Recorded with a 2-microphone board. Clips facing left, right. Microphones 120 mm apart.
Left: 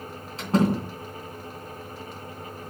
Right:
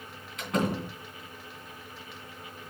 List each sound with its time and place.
0.4 s a door slam: 35° left (ahead or behind), 3 m